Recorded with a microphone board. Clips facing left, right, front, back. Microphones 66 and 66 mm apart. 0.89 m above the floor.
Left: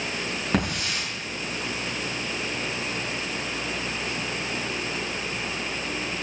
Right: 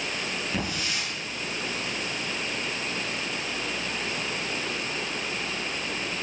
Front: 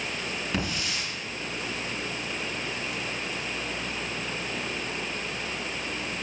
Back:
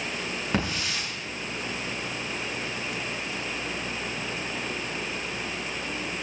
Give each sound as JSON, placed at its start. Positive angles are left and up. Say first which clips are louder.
{"t": 0.5, "sound": "a hiss", "louder": "left 7 dB, back 3 dB", "azimuth_deg": 125, "distance_m": 6.5}